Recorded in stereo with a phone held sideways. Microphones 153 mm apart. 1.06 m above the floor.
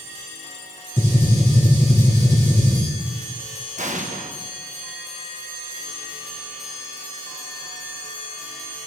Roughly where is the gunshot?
Centre.